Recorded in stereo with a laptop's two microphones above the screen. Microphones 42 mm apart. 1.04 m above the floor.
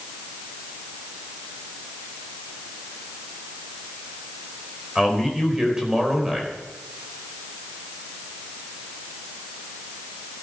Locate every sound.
5.0 s a man speaking: 15° right (ahead or behind), 4 m